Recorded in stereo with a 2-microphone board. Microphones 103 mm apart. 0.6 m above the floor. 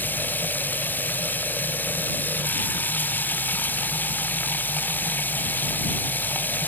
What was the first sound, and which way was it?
Running water, 15° left (ahead or behind).